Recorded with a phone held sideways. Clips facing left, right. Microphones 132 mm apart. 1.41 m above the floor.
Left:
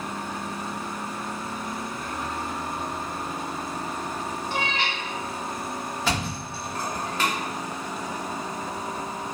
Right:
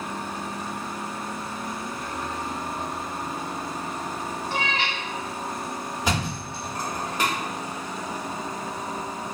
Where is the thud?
15° right (ahead or behind), 0.9 m.